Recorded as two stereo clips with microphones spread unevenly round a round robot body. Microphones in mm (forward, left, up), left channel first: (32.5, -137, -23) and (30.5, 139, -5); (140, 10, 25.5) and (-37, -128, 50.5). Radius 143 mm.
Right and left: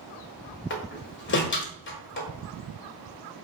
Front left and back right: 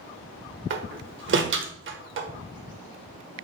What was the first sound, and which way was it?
A door slam, 125° right.